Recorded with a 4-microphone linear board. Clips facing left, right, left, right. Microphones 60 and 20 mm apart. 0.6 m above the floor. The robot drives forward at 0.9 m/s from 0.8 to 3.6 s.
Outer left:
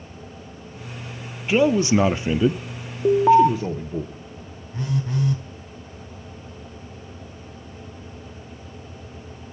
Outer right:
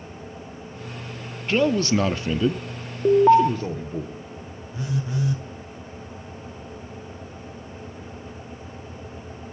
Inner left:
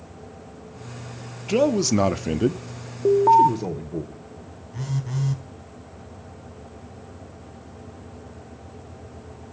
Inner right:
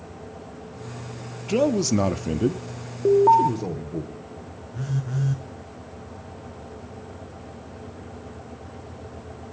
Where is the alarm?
5° right (ahead or behind), 0.6 m; by 3.5 s centre (ahead or behind), 0.8 m.